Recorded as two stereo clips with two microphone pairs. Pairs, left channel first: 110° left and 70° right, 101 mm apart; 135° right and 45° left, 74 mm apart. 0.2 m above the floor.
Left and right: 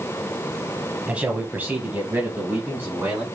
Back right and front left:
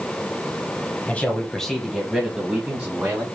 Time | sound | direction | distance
1.1 | a man speaking | 125° right | 1.1 m